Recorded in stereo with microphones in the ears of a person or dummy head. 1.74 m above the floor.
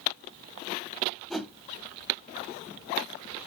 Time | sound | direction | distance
1.3 | a whoosh | 5° left (ahead or behind) | 1.2 m